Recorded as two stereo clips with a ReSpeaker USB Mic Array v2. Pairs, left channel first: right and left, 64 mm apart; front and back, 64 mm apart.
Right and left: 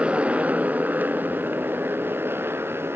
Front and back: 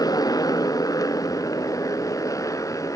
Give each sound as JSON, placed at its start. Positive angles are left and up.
{"t": 0.0, "sound": "a motorcycle", "azimuth_deg": 15}